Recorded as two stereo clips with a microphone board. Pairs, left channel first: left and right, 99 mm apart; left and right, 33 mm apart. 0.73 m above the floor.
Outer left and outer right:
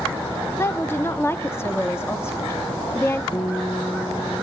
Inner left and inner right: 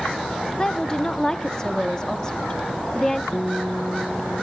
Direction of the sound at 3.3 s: 45° left (ahead or behind).